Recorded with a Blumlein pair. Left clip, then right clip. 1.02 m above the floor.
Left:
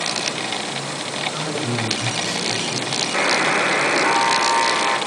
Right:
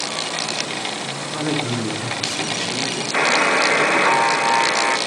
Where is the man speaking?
45° right, 0.9 m; by 3.0 s straight ahead, 2.0 m.